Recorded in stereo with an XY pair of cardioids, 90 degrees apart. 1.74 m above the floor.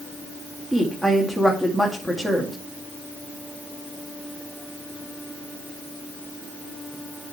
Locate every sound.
0.7 s a woman speaking: 5° right, 2.5 m